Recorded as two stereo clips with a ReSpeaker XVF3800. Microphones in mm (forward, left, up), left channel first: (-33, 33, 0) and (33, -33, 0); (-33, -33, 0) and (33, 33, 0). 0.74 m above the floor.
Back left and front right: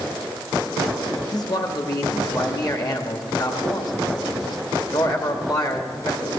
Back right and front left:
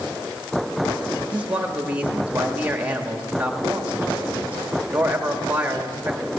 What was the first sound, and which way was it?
A man speaking, 115° left.